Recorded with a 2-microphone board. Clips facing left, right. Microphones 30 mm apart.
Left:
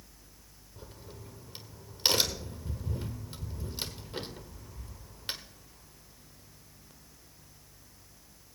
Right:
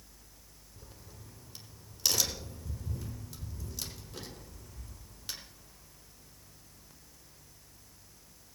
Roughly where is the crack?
Left.